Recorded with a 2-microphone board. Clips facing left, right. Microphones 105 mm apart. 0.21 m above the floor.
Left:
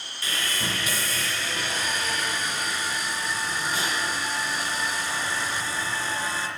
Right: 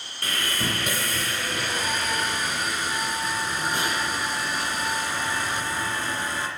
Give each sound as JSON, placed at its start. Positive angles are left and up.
{"t": 0.2, "sound": "sawing", "side_deg": -55, "distance_m": 3.0}